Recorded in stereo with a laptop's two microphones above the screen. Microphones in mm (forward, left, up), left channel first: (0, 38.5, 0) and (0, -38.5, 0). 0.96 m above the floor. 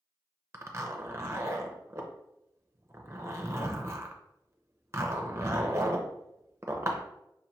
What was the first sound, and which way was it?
A zipper, 35° right (ahead or behind).